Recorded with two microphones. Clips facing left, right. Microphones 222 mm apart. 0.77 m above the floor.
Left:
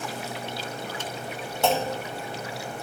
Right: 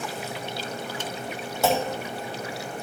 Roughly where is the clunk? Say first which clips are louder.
Right 1 dB; centre.